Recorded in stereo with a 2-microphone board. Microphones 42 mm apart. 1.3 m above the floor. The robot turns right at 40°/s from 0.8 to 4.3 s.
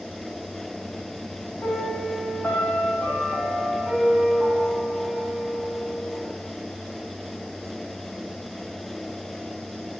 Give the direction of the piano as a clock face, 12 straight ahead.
9 o'clock.